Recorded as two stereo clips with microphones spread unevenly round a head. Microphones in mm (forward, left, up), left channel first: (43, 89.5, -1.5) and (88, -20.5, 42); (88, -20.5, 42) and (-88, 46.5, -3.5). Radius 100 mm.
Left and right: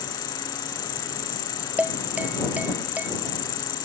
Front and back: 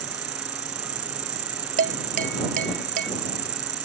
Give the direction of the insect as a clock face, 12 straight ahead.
8 o'clock.